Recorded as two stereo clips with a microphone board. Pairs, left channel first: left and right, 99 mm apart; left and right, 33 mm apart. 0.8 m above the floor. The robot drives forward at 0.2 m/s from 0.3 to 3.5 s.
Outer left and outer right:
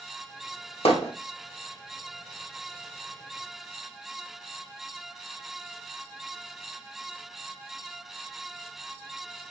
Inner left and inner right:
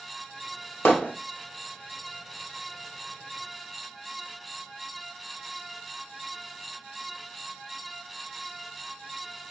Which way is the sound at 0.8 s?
80° left.